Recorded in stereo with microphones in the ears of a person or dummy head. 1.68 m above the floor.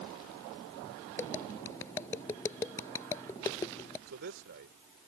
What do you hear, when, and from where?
1.2 s tapping: 10° left (ahead or behind)
4.1 s a man speaking: 45° right (ahead or behind)